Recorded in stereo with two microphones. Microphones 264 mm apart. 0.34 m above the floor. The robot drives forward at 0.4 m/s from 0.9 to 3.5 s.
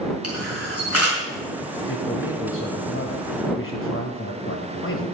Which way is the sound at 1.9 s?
50° left (ahead or behind).